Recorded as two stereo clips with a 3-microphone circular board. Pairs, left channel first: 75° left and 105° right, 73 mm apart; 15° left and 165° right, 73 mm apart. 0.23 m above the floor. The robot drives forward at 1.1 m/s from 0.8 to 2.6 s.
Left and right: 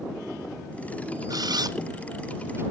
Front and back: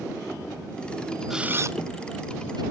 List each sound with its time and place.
1.3 s a camera shutter: 80° right, 0.5 m; by 2.6 s 160° right, 1.4 m